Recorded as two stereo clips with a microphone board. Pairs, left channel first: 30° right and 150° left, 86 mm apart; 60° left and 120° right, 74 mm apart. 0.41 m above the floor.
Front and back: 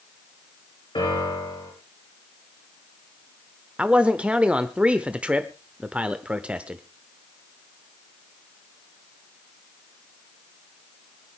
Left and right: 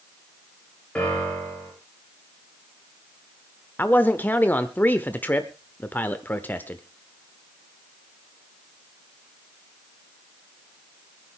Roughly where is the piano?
Ahead.